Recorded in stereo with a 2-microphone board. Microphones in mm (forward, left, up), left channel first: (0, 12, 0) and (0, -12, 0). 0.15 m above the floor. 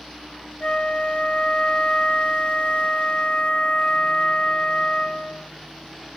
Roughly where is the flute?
Left.